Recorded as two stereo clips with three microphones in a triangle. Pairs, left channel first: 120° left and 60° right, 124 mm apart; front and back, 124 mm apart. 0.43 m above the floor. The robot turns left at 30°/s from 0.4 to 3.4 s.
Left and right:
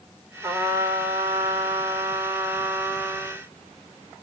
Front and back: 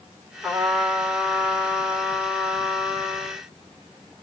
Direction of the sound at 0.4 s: 75° right.